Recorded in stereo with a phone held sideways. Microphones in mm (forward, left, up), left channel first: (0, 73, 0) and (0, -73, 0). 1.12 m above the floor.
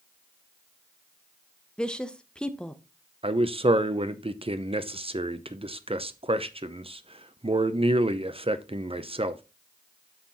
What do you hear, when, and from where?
1.8 s a woman speaking: 5° left (ahead or behind), 0.8 m
3.2 s a man speaking: 40° right (ahead or behind), 0.7 m